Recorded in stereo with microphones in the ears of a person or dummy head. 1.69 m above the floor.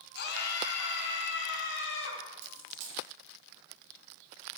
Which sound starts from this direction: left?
A scream, at 0.1 s.